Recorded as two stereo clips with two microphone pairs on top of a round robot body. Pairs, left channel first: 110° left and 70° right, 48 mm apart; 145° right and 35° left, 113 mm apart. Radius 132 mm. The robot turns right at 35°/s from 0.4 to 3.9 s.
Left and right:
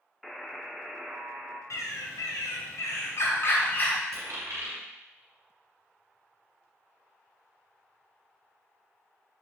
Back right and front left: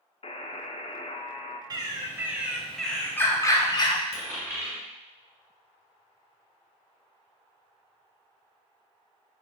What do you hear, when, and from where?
0.2 s a buzzer: 160° right, 0.7 m; by 1.6 s 115° right, 0.7 m
1.7 s a bird: 90° left, 0.6 m; by 4.0 s 170° left, 0.6 m
4.1 s a dropped coin: 80° right, 1.7 m